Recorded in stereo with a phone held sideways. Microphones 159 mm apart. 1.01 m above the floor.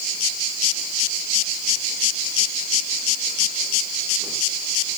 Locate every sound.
Only background noise.